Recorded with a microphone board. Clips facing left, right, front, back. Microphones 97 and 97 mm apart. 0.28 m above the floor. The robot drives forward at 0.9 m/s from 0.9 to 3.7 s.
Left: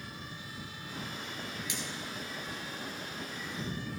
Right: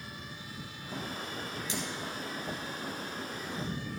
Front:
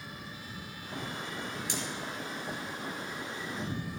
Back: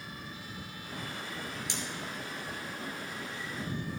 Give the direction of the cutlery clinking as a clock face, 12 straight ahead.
1 o'clock.